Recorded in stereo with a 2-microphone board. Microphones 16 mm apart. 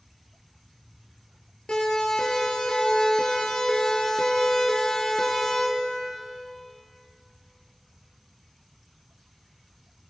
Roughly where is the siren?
Left.